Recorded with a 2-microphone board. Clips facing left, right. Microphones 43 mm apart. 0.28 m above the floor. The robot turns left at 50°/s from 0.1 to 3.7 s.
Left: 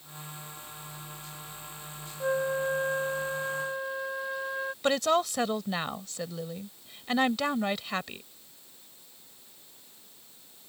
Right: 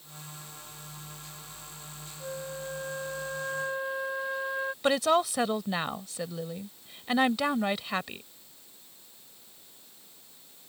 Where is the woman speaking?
5° right (ahead or behind).